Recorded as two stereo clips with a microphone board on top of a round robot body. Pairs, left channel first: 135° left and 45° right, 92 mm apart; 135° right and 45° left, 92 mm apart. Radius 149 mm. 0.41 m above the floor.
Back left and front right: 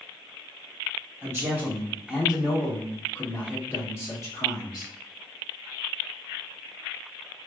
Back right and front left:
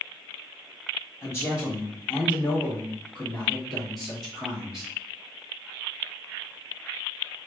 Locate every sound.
1.2 s a man speaking: 90° right, 1.6 m; by 4.9 s 125° left, 1.8 m